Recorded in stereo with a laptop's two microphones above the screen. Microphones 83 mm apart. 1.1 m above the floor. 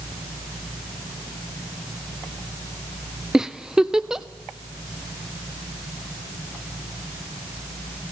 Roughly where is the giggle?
Centre.